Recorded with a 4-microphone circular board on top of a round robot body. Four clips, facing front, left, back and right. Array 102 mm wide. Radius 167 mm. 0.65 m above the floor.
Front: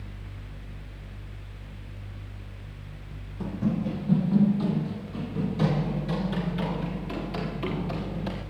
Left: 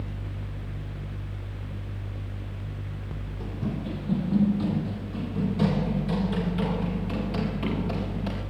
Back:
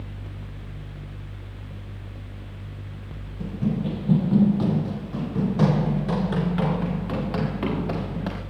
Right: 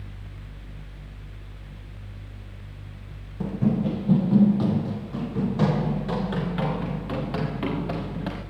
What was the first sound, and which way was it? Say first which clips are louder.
Running footsteps: right 9 dB, back 2 dB; 80° right.